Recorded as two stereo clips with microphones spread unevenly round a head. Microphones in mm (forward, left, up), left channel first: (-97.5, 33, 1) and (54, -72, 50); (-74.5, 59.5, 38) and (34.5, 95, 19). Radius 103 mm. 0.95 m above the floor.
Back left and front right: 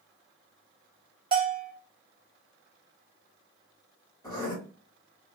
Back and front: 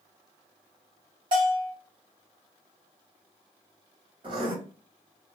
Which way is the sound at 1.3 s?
35° right.